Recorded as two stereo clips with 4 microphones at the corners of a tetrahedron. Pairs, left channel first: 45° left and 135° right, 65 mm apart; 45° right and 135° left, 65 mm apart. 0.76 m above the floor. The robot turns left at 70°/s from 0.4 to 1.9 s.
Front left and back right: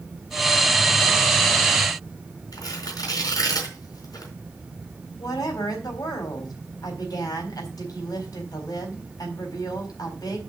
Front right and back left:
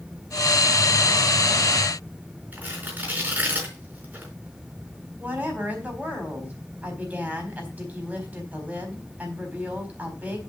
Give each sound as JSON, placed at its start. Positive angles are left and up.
{"t": 2.5, "sound": "tearing paper", "azimuth_deg": 70, "distance_m": 4.0}
{"t": 5.2, "sound": "a woman speaking", "azimuth_deg": 65, "distance_m": 4.0}